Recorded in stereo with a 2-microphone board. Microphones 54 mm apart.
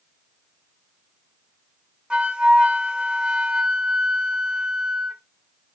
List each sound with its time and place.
2.1 s a flute: 20° right (ahead or behind), 0.5 m